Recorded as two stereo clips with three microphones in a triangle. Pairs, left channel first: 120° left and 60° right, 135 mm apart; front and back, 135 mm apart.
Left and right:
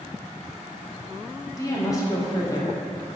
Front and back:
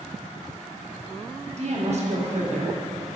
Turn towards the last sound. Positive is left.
turn(degrees=180)